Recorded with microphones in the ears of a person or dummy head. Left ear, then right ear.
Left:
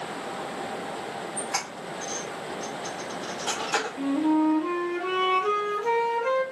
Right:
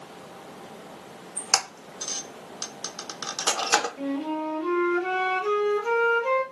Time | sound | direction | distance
1.4 | a squeak | 80° right | 0.7 m
4.0 | a flute | 15° left (ahead or behind) | 1.3 m